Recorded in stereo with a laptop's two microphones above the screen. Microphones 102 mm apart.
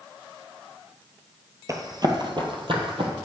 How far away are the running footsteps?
About 1.4 m.